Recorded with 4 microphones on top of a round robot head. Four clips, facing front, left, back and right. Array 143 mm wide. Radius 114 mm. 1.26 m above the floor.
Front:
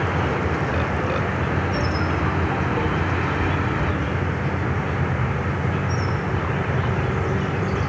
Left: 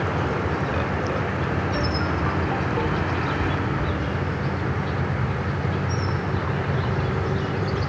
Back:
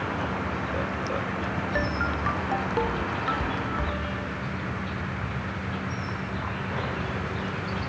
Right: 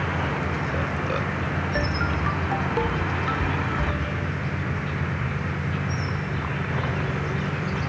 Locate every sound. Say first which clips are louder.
0.0 s an insect: left 2 dB, front 6 dB; 35° left, 1.2 m